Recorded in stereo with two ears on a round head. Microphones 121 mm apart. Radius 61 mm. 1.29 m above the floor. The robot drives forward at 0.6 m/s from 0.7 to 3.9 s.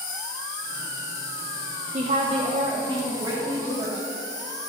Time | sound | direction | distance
0.0 | an insect | 60° left (ahead or behind) | 1.8 m
1.9 | a woman speaking | 50° right (ahead or behind) | 0.9 m